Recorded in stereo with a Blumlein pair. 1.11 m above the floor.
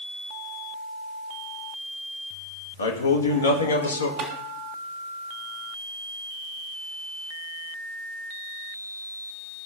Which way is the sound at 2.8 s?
70° left.